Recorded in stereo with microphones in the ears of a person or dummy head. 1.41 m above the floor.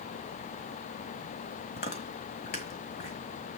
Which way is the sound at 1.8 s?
30° left (ahead or behind).